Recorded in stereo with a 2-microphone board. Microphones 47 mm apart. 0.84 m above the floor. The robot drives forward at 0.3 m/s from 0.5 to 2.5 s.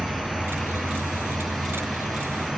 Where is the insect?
20° right (ahead or behind), 1.2 m; by 2.6 s 15° right (ahead or behind), 1.7 m.